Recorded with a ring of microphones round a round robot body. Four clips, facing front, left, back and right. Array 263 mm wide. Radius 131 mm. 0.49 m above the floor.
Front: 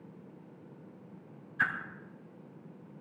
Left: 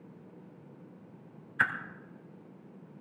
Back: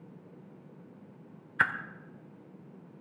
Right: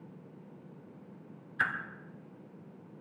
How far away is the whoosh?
About 1.7 m.